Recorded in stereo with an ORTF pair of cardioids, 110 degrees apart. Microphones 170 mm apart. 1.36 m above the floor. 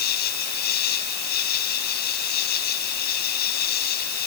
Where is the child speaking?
I don't hear a child speaking.